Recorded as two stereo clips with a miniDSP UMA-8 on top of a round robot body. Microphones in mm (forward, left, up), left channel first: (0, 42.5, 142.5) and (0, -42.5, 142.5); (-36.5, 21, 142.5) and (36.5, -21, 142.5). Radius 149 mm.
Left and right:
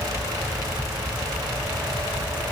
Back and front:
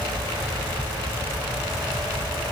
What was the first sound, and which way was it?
Only background noise.